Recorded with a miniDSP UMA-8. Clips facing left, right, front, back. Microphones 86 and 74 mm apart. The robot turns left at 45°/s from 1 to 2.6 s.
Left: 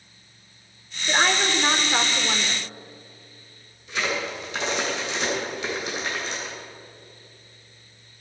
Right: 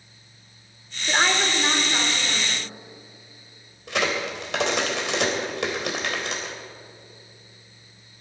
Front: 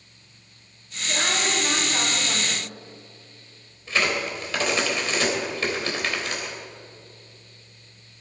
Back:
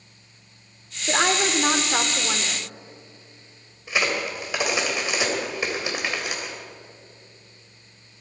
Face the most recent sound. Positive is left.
turn(degrees=-105)